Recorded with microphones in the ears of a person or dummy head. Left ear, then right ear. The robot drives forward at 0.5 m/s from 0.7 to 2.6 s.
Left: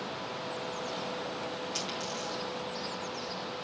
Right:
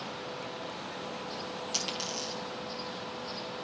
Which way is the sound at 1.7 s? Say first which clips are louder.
Right 5 dB; 65° right (ahead or behind).